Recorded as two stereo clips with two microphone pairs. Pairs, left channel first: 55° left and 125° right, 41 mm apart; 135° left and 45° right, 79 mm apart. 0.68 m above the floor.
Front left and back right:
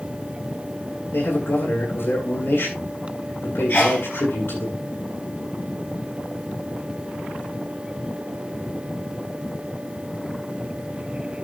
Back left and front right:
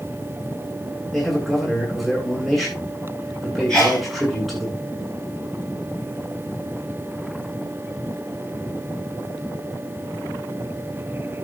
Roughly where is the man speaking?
Ahead left.